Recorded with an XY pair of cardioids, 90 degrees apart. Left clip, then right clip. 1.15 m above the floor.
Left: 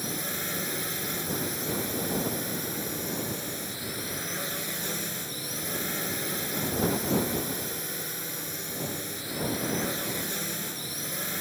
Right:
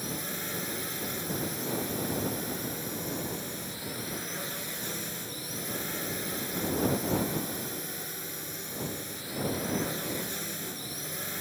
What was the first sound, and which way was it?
A drone, 20° left.